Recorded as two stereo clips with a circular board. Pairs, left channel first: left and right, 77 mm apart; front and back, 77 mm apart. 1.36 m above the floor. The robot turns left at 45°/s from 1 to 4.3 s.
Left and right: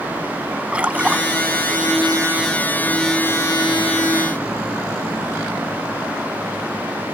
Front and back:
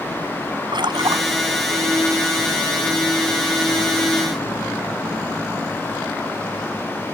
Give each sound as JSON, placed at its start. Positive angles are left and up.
{"t": 0.7, "sound": "a splash", "azimuth_deg": -165}